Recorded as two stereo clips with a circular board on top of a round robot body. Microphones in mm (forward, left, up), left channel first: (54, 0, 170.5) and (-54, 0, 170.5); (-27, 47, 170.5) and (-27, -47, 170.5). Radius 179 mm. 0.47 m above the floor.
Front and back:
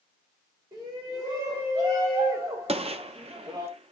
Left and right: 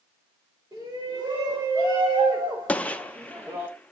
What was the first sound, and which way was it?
A shout, 145° right.